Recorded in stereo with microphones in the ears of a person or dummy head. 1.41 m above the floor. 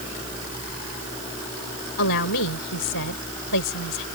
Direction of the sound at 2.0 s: 75° left (ahead or behind).